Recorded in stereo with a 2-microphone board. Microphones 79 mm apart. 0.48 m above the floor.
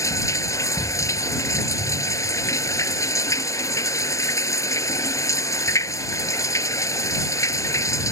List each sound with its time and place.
0.0 s running water: 40° left (ahead or behind)